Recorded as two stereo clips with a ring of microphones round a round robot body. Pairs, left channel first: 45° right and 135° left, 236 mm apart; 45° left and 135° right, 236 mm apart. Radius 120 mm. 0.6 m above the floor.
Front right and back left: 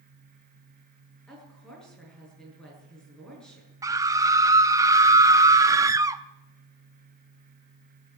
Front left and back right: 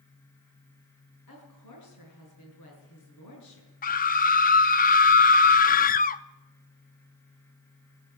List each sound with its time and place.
1.3 s a woman speaking: 45° left, 8 m
3.8 s a scream: 65° left, 0.7 m